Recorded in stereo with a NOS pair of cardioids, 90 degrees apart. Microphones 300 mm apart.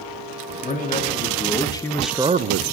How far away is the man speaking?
About 2.5 m.